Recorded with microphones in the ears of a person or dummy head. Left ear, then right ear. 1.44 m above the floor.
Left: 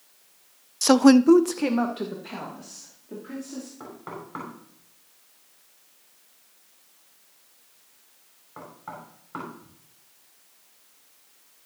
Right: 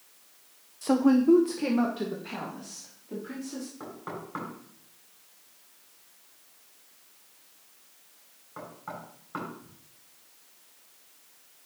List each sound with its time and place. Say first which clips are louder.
0.8 s a woman speaking: left 7 dB; 55° left (ahead or behind), 0.6 m; by 3.7 s 5° left (ahead or behind), 3.5 m
3.8 s knocking: even; centre (ahead or behind), 6.5 m